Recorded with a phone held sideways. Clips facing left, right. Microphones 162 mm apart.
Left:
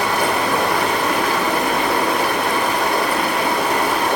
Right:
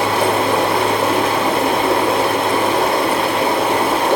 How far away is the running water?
About 0.9 m.